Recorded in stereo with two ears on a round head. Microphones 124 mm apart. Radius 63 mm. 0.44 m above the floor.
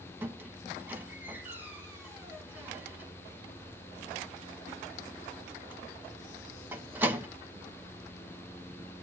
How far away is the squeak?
About 0.8 m.